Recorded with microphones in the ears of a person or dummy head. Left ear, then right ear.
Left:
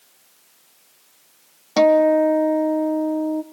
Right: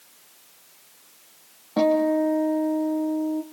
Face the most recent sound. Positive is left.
turn(degrees=70)  # may be behind; listen again after turning